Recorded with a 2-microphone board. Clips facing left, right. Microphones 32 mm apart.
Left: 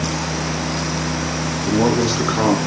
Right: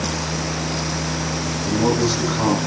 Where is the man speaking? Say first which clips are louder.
Left 2 dB; 45° left (ahead or behind), 5.5 m.